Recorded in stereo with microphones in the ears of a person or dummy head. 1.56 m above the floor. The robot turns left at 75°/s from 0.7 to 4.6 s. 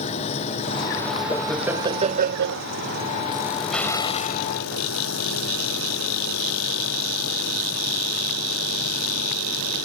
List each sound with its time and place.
0.0 s an engine running: 40° left; by 9.8 s 105° left
1.3 s laughter: 20° left; by 2.6 s 80° right
3.7 s an explosion: straight behind; by 4.5 s 125° left